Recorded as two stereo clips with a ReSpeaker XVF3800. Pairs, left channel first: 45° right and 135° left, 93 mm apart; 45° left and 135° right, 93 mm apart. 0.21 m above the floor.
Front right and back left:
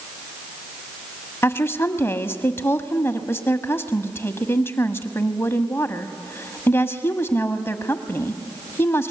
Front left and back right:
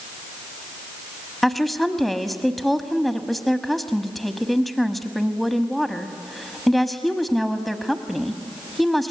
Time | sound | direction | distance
1.4 | a woman speaking | 45° right | 1.2 m